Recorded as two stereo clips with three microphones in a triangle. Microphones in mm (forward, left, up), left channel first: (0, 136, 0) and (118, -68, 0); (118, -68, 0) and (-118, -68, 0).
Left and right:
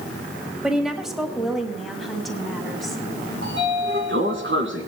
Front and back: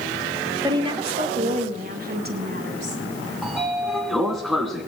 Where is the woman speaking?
140° right, 1.4 m; by 3.0 s 150° right, 2.5 m.